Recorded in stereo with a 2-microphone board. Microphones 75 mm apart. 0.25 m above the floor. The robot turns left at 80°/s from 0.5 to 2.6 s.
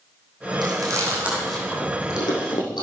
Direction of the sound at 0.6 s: 70° right (ahead or behind).